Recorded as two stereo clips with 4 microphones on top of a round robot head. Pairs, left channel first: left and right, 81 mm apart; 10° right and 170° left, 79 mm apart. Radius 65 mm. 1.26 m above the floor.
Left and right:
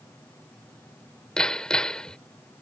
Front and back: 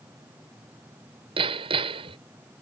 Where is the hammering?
170° left.